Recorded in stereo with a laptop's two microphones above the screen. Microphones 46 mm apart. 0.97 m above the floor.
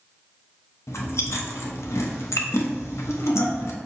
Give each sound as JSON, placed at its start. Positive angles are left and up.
{"t": 0.9, "sound": "chewing", "side_deg": 75, "distance_m": 0.6}